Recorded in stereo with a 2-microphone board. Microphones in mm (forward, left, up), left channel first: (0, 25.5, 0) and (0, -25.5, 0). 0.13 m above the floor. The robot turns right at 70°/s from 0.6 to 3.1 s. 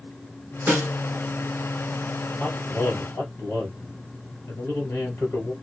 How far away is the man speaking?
About 1.7 m.